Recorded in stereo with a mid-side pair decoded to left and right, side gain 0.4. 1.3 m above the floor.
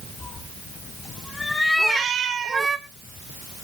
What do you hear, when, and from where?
0.2 s a cat meowing: 55° left, 3.5 m; by 2.8 s 40° right, 1.6 m
1.8 s a cat meowing: 65° right, 1.8 m